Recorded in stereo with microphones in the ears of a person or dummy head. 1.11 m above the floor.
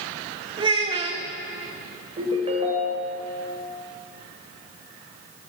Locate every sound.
0.6 s a child speaking: 35° right (ahead or behind), 1.2 m
2.2 s a ringtone: 35° right (ahead or behind), 1.9 m